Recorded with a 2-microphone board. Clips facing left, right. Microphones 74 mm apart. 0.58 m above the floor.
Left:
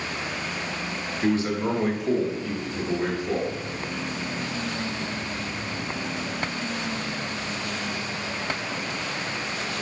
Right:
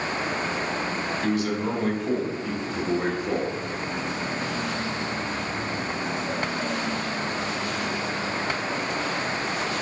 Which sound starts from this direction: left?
A man speaking, at 1.2 s.